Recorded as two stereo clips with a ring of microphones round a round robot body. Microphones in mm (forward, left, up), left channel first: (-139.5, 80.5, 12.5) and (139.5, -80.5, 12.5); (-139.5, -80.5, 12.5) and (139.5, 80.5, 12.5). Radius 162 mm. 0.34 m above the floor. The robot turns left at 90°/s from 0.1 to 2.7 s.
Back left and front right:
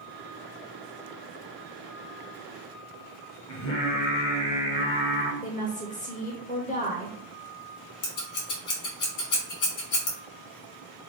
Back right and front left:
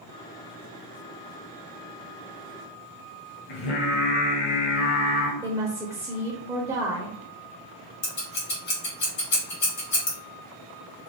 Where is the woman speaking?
105° left, 0.9 m.